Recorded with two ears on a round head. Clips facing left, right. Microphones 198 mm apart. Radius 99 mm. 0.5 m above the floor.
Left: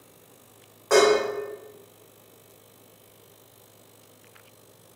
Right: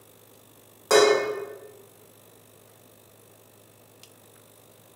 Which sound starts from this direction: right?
Dishes clattering, at 0.9 s.